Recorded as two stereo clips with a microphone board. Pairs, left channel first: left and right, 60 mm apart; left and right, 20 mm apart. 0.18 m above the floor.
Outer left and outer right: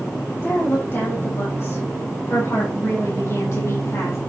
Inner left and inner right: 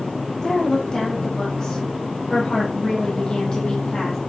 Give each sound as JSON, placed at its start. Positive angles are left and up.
{"t": 0.4, "sound": "a woman speaking", "side_deg": 35, "distance_m": 6.5}